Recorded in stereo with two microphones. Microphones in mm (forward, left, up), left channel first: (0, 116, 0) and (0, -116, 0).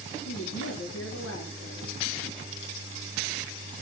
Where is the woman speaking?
80° left, 4 m.